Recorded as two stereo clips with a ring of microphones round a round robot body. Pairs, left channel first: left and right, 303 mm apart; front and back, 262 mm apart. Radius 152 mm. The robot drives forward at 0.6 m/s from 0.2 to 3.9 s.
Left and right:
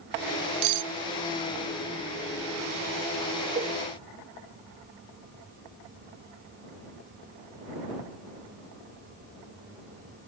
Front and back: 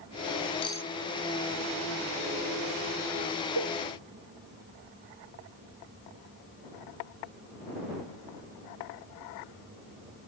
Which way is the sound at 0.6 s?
70° right.